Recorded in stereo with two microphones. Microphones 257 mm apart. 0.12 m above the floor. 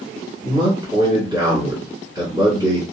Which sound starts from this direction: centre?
A man speaking, at 0.4 s.